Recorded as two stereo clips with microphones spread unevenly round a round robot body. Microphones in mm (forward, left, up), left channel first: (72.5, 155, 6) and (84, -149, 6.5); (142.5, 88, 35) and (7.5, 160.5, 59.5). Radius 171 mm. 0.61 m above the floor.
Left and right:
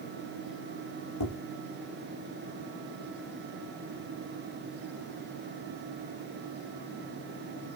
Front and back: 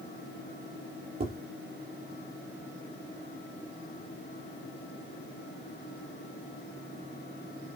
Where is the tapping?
130° left, 7 m.